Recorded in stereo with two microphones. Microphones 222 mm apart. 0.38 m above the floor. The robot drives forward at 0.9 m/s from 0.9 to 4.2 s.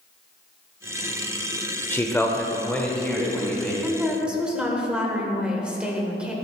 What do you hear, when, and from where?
1.9 s a man speaking: 10° left (ahead or behind), 0.8 m; by 3.7 s 5° left (ahead or behind), 2 m
3.8 s a woman speaking: 5° right (ahead or behind), 1.3 m